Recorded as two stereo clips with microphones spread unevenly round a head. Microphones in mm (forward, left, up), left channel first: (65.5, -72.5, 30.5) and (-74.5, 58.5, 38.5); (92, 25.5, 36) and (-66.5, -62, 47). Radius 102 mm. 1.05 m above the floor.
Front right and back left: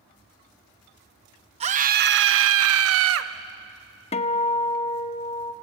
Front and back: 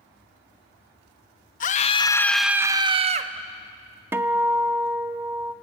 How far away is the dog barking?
I don't hear a dog barking.